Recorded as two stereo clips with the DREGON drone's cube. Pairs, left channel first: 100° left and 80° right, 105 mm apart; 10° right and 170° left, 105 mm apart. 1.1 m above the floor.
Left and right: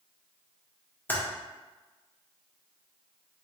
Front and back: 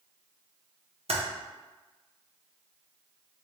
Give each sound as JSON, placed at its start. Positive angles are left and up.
{"t": 1.1, "sound": "typing on a keyboard", "azimuth_deg": 170, "distance_m": 0.8}